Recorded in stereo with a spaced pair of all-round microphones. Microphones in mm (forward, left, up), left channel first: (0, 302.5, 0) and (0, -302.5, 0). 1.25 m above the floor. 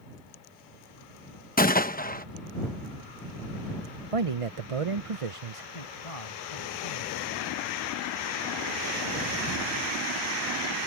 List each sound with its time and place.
1.6 s a gunshot: 15° left (ahead or behind)
4.1 s a man speaking: 60° right (ahead or behind)
5.7 s a man speaking: 65° left (ahead or behind)